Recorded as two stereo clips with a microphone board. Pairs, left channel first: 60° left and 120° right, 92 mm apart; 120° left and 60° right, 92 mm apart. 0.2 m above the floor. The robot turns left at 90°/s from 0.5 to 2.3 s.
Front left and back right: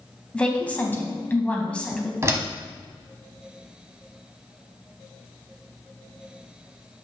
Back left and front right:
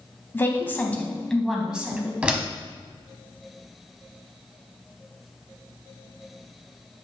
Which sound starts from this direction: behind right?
A door slam, at 2.2 s.